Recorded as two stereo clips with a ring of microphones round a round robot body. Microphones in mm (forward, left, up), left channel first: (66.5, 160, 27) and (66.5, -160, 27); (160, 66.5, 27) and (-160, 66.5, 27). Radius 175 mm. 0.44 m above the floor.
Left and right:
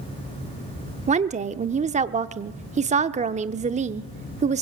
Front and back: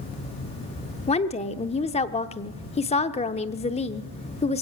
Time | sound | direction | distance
1.1 | a woman speaking | 50° right | 0.8 m